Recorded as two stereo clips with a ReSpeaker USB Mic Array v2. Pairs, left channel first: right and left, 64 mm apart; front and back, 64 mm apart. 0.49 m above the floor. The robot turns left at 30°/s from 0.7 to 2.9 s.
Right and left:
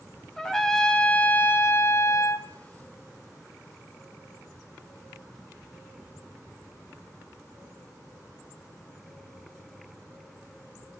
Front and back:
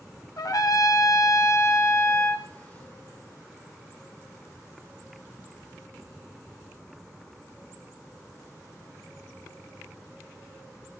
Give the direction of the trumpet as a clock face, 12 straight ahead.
12 o'clock.